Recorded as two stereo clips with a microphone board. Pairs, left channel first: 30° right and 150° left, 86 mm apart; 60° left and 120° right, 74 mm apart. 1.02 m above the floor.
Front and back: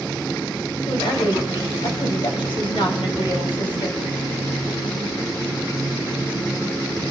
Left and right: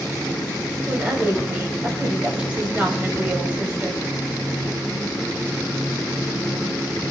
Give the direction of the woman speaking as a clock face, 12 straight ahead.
2 o'clock.